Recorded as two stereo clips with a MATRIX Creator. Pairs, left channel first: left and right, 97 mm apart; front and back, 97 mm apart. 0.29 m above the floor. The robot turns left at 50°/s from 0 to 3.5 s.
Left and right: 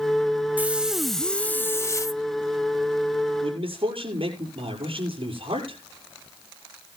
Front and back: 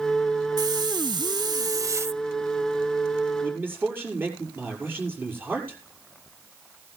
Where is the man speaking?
110° right, 6 m; by 5.8 s 115° right, 6 m.